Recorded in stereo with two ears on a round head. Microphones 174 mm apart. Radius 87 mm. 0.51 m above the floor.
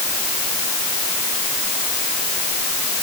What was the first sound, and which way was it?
Only background noise.